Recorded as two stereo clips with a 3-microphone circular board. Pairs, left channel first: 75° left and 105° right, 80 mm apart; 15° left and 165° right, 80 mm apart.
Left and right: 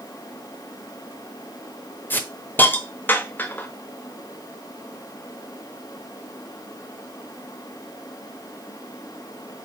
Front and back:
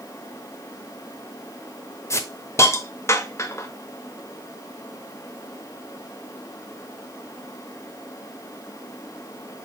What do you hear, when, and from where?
2.1 s a hiss: 25° left, 0.6 m